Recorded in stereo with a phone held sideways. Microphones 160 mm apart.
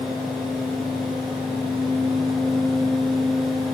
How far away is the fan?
About 1.7 m.